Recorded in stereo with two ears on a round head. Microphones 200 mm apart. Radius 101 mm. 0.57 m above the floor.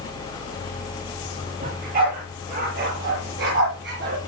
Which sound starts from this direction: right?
A dog barking, at 1.6 s.